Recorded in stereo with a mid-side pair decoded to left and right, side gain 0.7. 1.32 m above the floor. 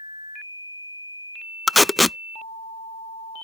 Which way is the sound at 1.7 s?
10° left.